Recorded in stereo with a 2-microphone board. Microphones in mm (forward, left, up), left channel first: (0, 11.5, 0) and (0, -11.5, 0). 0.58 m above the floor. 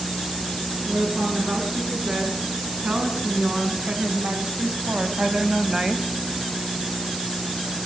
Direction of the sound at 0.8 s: 75° right (ahead or behind).